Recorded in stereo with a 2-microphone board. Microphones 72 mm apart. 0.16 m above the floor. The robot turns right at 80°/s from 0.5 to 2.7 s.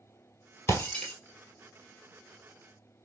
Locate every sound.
0.7 s breaking glass: 40° left (ahead or behind), 1.5 m; by 1.1 s 5° left (ahead or behind), 1.5 m